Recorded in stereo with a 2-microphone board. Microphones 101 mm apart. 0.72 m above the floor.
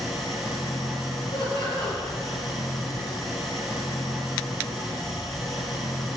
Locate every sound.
0.0 s an engine running: centre (ahead or behind), 3.5 m
1.3 s laughter: 50° left (ahead or behind), 3.5 m